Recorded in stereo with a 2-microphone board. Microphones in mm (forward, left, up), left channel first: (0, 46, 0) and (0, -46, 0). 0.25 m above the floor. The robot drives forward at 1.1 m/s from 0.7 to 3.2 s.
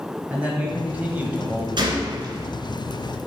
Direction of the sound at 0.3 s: 15° right (ahead or behind).